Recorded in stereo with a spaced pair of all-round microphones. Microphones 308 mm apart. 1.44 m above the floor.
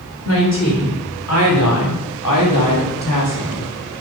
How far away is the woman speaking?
About 4 m.